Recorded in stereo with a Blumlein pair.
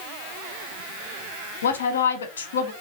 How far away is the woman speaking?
About 0.6 m.